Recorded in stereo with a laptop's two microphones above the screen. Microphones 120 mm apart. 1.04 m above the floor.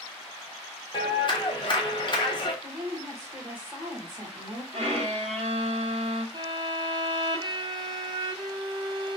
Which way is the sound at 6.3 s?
35° right (ahead or behind).